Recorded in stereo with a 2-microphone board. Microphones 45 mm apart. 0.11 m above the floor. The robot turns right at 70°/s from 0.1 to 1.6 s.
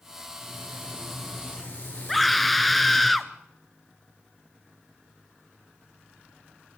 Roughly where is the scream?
Centre.